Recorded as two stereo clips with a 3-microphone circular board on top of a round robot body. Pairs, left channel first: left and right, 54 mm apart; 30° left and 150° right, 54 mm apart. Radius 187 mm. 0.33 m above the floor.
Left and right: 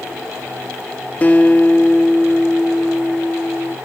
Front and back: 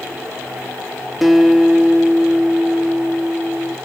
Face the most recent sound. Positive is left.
turn(degrees=125)